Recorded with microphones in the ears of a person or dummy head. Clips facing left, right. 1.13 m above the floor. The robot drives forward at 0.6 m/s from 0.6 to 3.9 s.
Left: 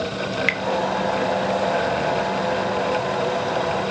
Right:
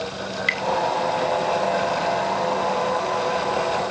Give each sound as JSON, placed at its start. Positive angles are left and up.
{"t": 0.3, "sound": "dripping", "side_deg": 30, "distance_m": 1.2}